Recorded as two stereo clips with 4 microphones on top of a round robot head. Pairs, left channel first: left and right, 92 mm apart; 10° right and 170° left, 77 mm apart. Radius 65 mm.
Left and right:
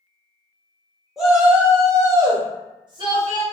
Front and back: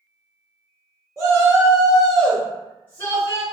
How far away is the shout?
About 0.8 m.